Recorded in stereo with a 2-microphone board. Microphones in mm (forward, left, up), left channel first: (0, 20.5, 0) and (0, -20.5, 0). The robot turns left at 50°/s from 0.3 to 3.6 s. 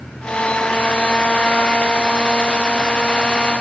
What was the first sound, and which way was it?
Only background noise.